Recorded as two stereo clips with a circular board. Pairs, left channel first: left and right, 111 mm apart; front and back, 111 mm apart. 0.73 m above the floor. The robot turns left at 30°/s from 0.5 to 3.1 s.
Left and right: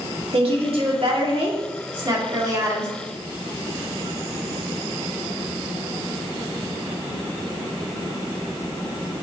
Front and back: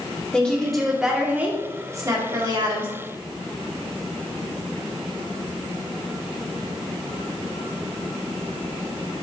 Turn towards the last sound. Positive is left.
turn(degrees=-160)